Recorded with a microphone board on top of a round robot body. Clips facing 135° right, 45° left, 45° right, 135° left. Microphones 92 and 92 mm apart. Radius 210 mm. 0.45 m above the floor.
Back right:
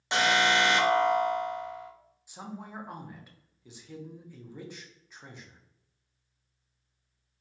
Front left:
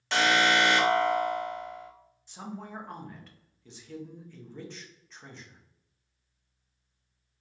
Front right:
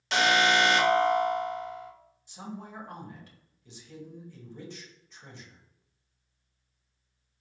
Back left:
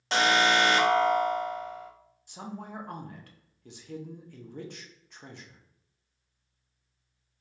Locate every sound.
0.1 s an alarm: 165° left, 1.2 m
2.3 s a woman speaking: 145° left, 1.1 m